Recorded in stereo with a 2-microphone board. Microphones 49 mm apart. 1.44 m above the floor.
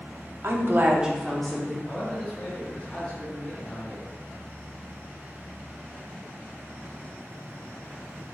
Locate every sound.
0.4 s a woman speaking: 65° right (ahead or behind), 0.7 m; by 1.8 s 15° left (ahead or behind), 1.3 m
1.9 s a man speaking: 25° left (ahead or behind), 1.5 m